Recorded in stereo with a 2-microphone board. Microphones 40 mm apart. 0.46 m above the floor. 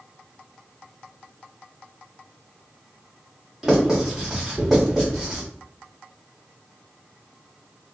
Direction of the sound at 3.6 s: 5° right (ahead or behind).